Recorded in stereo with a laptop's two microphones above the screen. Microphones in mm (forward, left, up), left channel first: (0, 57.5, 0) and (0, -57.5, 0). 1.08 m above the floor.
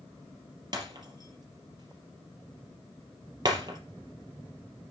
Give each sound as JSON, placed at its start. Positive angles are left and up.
{"t": 0.7, "sound": "breaking glass", "side_deg": -40, "distance_m": 5.0}